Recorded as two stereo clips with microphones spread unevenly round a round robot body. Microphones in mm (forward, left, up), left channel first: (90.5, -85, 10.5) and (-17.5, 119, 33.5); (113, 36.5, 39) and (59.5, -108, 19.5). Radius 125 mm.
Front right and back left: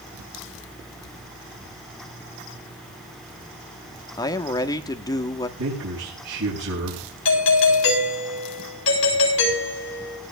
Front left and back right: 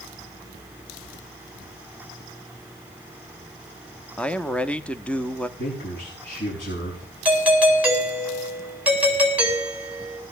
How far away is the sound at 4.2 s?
About 1.0 m.